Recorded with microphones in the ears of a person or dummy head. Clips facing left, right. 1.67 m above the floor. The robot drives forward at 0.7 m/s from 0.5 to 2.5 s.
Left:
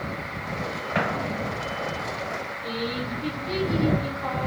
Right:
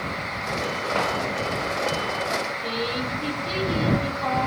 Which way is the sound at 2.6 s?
70° right (ahead or behind).